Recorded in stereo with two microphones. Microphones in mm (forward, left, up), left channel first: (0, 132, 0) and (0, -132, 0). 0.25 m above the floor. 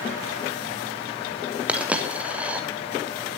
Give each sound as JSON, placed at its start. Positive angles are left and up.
{"t": 1.7, "sound": "a dropped coin", "side_deg": -5, "distance_m": 2.5}